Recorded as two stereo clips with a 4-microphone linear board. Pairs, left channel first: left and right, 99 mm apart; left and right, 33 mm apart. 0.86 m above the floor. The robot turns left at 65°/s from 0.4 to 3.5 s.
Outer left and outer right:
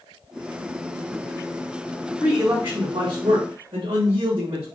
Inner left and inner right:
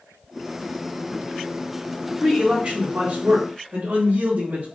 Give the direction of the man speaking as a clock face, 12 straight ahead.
12 o'clock.